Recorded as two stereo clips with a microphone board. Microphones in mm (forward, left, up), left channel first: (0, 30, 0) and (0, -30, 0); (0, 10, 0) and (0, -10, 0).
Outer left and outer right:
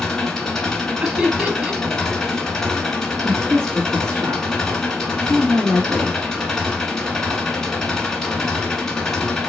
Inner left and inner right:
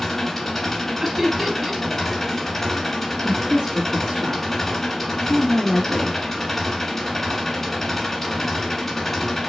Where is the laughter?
20° right (ahead or behind), 1.2 m.